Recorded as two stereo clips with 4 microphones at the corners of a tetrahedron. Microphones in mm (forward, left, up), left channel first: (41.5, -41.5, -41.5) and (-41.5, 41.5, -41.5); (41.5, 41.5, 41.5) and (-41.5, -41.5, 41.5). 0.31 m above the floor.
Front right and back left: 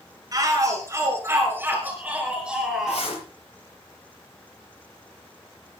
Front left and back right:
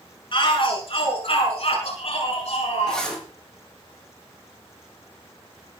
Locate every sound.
0.3 s a shout: 80° left, 5 m; by 3.1 s 45° left, 5 m
2.9 s a zipper: 40° right, 6.5 m